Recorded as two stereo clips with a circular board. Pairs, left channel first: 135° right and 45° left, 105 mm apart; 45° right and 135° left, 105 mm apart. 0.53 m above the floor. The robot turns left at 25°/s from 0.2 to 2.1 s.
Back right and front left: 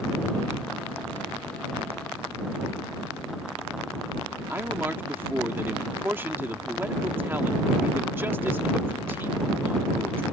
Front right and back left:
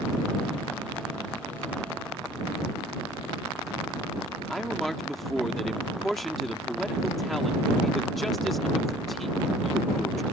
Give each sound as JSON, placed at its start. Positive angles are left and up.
{"t": 4.5, "sound": "a man speaking", "azimuth_deg": 40}